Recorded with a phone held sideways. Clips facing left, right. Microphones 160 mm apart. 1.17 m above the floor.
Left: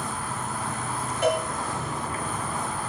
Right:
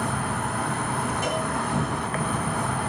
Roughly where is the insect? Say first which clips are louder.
Right 5 dB; right.